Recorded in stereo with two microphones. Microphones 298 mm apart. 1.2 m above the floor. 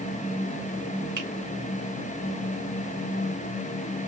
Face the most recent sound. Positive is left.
turn(degrees=-80)